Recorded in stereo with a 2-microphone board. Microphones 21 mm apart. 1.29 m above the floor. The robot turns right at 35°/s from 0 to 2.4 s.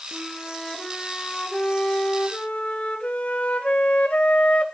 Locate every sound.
0.1 s a flute: straight ahead, 2.0 m; by 4.7 s 80° left, 2.0 m